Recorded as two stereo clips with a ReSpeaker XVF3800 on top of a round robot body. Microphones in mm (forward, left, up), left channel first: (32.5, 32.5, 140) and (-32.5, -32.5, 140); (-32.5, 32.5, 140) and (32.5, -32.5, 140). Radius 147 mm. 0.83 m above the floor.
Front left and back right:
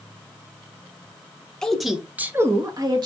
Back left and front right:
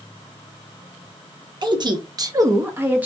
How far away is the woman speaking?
About 1.0 m.